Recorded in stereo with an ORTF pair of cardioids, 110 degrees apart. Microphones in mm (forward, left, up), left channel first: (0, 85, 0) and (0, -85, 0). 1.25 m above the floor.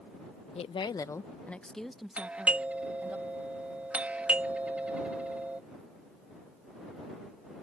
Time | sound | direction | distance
0.6 | a woman speaking | 40° left | ?
2.2 | a doorbell | 10° right | ?